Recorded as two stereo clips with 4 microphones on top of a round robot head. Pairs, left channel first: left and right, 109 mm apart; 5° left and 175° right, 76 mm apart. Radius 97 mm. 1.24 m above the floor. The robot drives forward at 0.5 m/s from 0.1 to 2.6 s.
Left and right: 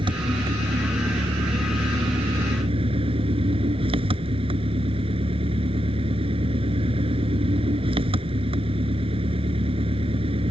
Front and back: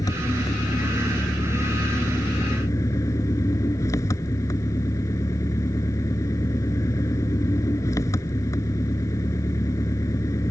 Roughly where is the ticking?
No ticking in this recording.